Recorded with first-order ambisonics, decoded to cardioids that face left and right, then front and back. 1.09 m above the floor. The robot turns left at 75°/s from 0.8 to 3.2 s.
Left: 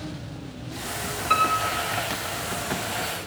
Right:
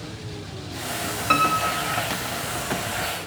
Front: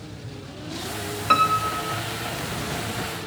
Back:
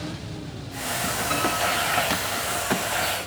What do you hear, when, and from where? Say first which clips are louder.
1.3 s a piano: right 1 dB, front 6 dB; 45° right, 2 m; by 2.0 s 100° right, 2 m